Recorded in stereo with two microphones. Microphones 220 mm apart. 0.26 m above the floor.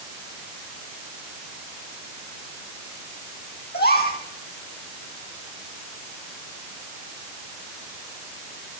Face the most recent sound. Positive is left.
turn(degrees=45)  # may be behind; listen again after turning